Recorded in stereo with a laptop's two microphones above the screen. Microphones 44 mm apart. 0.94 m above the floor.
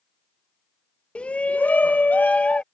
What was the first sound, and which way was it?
A shout, 25° left (ahead or behind).